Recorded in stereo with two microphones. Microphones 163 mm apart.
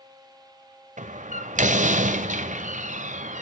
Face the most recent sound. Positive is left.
turn(degrees=-50)  # may be behind; listen again after turning